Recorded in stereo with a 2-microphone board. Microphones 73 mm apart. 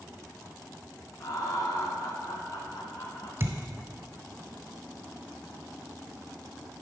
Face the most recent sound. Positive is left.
turn(degrees=-35)  # may be behind; listen again after turning